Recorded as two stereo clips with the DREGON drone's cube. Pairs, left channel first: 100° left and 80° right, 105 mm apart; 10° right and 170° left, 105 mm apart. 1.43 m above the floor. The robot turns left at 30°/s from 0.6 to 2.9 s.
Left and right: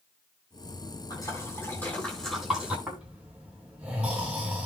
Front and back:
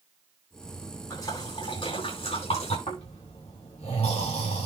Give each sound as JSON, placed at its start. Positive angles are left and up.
{"t": 1.1, "sound": "a splash", "azimuth_deg": 50, "distance_m": 8.5}
{"t": 2.9, "sound": "snoring", "azimuth_deg": 0, "distance_m": 6.5}